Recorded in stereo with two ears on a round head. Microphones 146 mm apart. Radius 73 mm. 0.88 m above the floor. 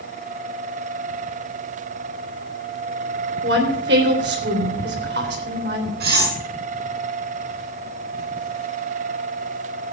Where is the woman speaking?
75° right (ahead or behind), 3 m.